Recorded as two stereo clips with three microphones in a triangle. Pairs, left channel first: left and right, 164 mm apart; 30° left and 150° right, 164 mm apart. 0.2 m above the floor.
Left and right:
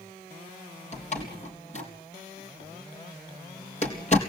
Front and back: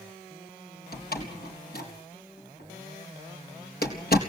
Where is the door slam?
45° left, 4 m.